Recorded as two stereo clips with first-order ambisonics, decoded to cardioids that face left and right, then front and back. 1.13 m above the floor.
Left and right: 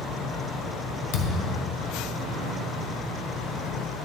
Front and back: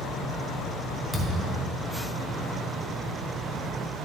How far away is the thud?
About 1.4 m.